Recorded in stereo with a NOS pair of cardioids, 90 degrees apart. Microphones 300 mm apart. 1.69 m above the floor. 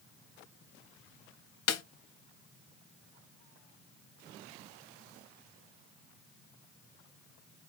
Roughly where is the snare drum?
Ahead left.